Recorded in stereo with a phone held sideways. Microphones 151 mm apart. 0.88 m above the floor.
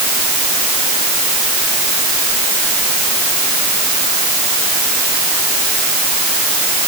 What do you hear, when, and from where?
Only background noise.